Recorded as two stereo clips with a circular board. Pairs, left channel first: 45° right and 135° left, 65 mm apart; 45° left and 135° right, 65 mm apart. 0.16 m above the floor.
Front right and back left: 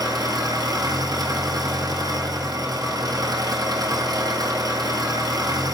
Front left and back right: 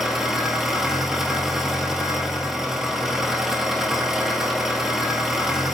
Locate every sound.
0.0 s an engine running: 140° left, 1.0 m